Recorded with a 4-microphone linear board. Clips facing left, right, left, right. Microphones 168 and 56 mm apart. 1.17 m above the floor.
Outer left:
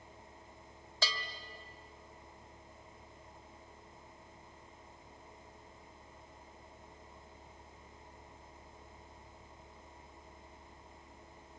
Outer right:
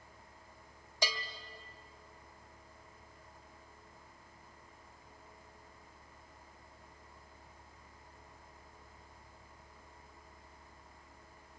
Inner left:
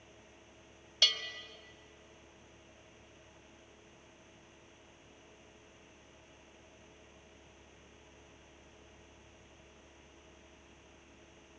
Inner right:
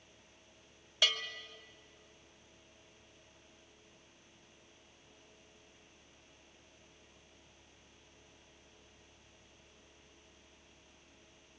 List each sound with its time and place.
1.0 s a bell: 15° right (ahead or behind), 1.7 m